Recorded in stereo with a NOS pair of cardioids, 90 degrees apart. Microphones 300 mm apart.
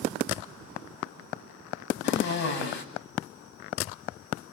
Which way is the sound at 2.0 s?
60° left.